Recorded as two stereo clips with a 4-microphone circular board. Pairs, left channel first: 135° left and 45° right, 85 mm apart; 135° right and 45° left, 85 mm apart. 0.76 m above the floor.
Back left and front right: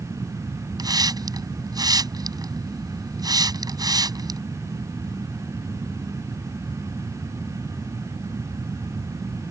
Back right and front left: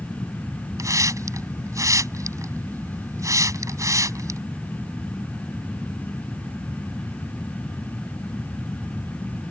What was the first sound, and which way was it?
A hiss, 5° right.